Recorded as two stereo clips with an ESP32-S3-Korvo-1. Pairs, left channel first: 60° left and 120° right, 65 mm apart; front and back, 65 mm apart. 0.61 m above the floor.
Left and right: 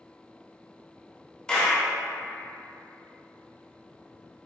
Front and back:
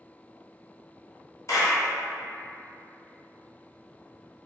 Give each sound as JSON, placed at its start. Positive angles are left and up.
{"t": 1.5, "sound": "a clap", "azimuth_deg": -15, "distance_m": 0.6}